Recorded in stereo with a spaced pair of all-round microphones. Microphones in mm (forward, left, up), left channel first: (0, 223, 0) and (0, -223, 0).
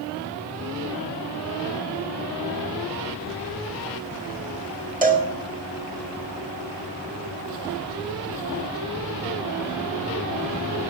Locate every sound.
5.0 s a cowbell: 20° right (ahead or behind), 1.7 m